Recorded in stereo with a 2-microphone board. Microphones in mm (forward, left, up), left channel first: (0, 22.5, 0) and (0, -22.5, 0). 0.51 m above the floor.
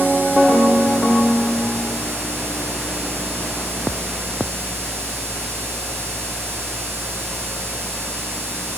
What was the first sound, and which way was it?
Only background noise.